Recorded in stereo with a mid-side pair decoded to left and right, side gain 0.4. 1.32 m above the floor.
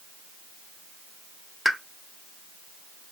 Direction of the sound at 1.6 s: 5° right.